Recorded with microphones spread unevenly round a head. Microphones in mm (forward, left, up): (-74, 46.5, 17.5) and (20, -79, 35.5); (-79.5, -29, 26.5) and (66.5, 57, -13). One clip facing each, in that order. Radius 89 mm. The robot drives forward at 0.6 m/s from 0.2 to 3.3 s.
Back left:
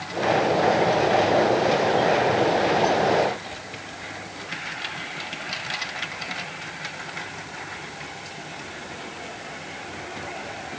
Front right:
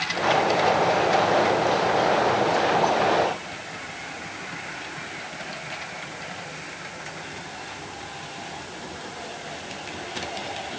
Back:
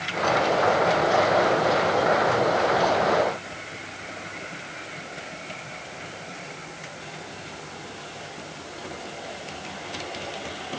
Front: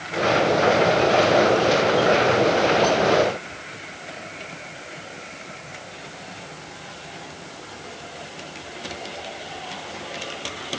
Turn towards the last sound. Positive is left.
No sound to turn to.